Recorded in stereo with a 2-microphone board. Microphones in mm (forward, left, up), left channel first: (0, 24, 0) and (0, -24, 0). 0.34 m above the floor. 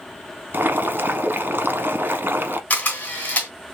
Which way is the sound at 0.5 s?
45° right (ahead or behind).